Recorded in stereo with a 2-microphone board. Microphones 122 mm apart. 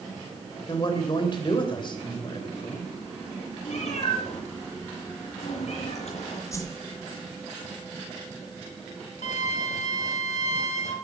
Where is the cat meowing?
65° left (ahead or behind), 7.5 m.